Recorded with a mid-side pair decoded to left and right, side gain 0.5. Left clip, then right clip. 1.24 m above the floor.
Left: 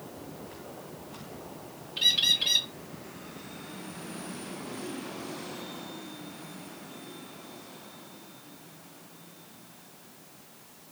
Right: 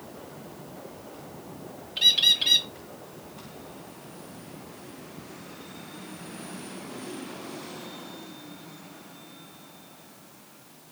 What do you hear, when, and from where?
2.0 s a bird: 20° right, 0.8 m